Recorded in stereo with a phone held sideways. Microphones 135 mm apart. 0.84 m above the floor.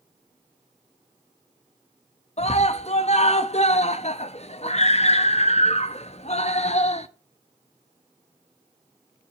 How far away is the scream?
About 0.7 m.